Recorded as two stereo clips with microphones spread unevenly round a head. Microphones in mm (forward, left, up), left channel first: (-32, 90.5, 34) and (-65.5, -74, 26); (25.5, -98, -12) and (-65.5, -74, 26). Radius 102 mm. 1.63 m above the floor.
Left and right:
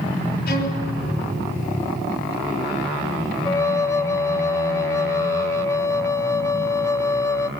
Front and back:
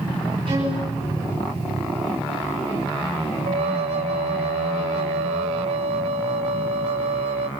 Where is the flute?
155° left, 0.6 m.